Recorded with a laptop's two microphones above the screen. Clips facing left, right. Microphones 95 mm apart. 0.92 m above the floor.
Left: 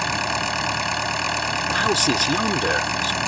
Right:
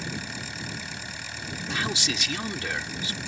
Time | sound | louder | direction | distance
0.0 | an engine running | left 12 dB | 80° left | ?
1.7 | a man speaking | left 9 dB | 45° left (ahead or behind) | ?